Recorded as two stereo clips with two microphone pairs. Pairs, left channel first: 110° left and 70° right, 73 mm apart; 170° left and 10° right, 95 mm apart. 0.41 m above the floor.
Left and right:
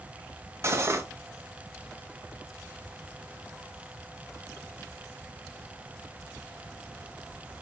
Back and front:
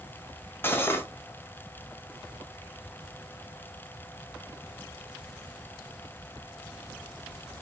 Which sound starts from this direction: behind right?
Cutlery clinking, at 0.6 s.